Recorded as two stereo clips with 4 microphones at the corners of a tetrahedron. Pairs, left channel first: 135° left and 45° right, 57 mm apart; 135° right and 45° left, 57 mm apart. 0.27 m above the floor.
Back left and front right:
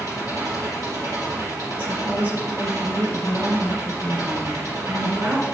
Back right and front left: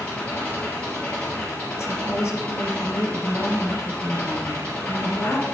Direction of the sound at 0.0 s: 70° right.